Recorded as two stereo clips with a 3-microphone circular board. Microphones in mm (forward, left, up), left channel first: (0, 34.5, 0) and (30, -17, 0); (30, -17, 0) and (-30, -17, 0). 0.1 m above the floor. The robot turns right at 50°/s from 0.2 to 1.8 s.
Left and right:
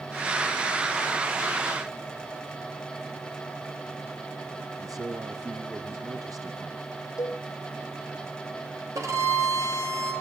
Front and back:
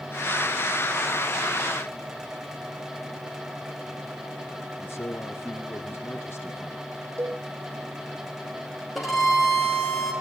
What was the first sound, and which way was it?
A man speaking, 50° right.